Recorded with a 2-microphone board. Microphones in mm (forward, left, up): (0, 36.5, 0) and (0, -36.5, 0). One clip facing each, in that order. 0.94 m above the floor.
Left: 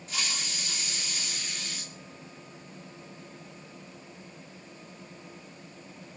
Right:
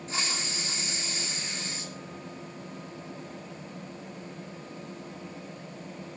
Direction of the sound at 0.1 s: 30° right (ahead or behind).